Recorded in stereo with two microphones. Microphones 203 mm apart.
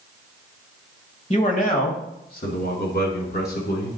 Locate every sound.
1.3 s a man speaking: 35° left (ahead or behind), 1.2 m; by 4.0 s 55° left (ahead or behind), 3 m